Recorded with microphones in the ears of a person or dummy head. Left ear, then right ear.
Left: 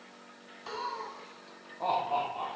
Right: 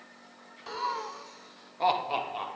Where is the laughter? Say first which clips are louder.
Right 4 dB; 5° right (ahead or behind), 0.6 m; by 2.5 s 60° right (ahead or behind), 2 m.